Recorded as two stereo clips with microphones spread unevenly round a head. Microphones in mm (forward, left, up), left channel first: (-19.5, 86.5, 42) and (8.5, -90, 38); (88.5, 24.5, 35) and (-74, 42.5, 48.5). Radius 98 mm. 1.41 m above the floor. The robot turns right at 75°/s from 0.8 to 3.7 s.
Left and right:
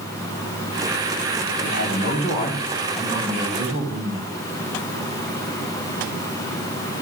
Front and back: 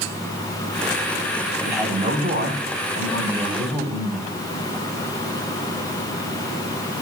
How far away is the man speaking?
About 8 m.